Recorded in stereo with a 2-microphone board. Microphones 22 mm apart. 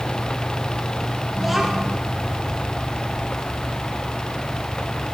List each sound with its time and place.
1.4 s a child speaking: 10° right (ahead or behind), 2.5 m